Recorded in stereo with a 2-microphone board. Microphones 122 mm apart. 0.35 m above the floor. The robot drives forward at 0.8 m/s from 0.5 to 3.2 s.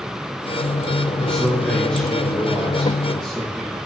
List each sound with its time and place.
1.2 s a man speaking: 10° left (ahead or behind), 4 m; by 3.8 s 5° left (ahead or behind), 6 m